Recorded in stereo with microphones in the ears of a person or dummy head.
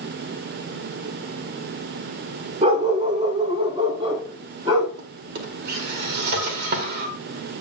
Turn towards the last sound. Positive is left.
turn(degrees=-55)  # may be behind; listen again after turning